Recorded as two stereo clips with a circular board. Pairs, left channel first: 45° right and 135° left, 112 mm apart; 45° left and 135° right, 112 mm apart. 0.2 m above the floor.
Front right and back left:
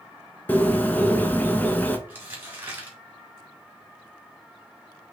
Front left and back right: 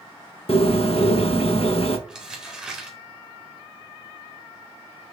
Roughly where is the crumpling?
Behind.